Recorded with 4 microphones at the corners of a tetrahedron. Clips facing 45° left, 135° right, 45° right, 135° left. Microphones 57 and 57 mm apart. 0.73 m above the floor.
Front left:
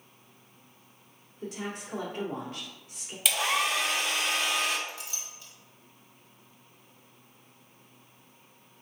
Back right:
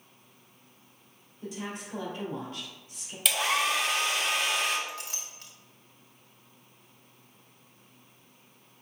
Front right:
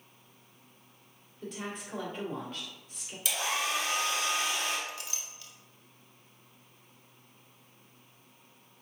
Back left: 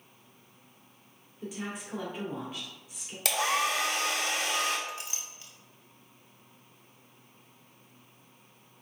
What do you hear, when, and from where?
1.4 s a woman speaking: 55° left, 1.8 m
3.2 s a hair dryer: 135° left, 0.8 m
4.9 s a clink: 165° right, 0.7 m